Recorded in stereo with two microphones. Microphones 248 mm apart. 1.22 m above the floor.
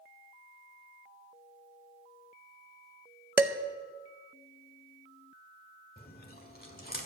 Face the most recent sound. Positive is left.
turn(degrees=35)  # may be behind; listen again after turning